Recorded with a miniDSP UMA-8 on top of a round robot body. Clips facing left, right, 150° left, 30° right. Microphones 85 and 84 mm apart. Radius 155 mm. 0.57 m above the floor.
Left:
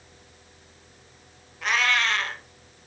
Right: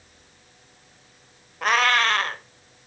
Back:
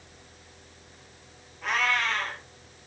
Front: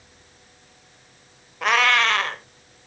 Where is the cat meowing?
45° right, 1.1 m.